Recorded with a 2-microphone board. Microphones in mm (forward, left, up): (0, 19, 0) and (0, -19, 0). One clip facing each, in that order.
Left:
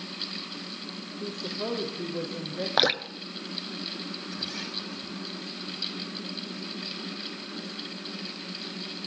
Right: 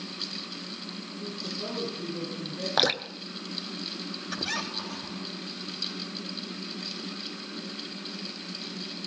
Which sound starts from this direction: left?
A woman speaking, at 1.2 s.